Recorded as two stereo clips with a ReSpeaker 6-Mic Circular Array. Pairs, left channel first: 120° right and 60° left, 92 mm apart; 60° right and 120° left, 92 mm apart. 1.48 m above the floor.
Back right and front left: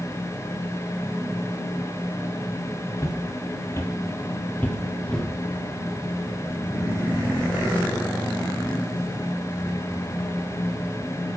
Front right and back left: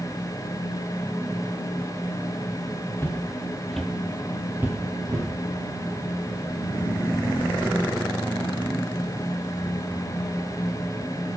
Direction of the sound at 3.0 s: 105° right.